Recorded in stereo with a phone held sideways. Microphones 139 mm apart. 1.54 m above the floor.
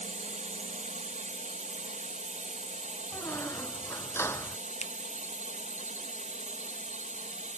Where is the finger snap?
55° left (ahead or behind).